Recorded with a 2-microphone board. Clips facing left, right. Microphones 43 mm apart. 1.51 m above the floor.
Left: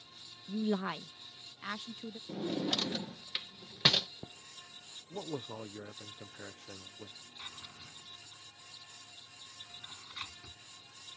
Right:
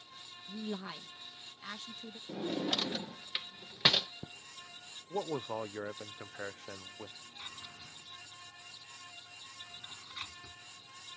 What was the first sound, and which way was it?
A woman speaking, 40° left (ahead or behind).